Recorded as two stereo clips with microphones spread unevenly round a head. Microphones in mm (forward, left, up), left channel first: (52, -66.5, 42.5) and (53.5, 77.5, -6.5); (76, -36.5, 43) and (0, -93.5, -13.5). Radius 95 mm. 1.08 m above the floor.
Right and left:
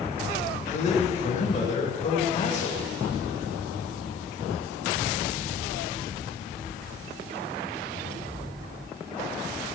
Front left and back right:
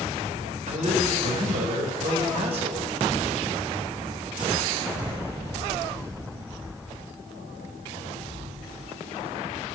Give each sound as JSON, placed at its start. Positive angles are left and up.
{"t": 0.7, "sound": "a man speaking", "azimuth_deg": -145, "distance_m": 4.5}